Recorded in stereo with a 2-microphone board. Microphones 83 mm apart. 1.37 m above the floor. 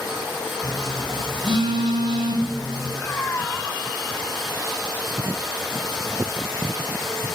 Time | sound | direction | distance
0.6 | a phone buzzing | 70° right (ahead or behind) | 9 m
3.0 | a cat meowing | 30° left (ahead or behind) | 2.5 m